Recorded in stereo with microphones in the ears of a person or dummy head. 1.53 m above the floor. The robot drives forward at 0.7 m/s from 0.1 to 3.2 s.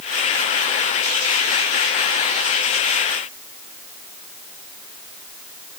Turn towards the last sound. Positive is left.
No sound to turn to.